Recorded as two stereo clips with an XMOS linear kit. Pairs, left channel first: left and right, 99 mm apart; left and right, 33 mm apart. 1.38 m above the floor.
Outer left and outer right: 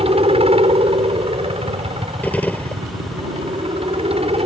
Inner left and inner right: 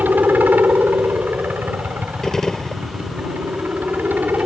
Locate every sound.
0.0 s a helicopter: 75° right (ahead or behind)
2.2 s a gunshot: 15° left (ahead or behind)